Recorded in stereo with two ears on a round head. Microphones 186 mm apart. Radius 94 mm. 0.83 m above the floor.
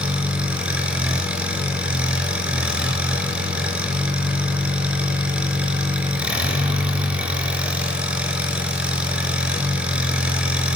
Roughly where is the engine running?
Centre.